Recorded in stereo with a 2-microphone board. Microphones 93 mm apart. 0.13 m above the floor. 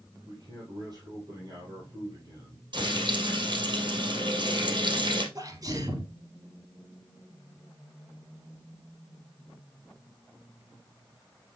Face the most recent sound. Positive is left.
turn(degrees=-40)  # may be behind; listen again after turning